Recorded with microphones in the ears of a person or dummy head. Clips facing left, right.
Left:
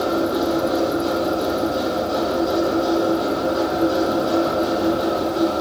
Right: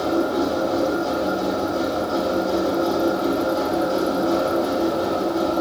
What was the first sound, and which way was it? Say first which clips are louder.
A machine running: left 1 dB; 30° left (ahead or behind).